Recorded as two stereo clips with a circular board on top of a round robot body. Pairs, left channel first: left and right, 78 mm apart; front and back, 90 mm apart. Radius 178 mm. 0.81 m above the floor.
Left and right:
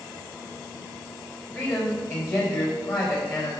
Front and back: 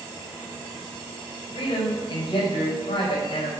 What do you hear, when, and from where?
1.5 s a man speaking: 35° left, 4 m